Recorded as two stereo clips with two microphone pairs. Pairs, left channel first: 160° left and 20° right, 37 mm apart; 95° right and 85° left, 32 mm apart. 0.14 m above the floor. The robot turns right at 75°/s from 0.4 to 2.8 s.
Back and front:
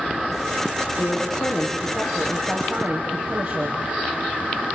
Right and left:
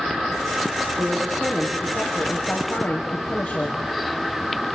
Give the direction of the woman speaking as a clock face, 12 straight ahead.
7 o'clock.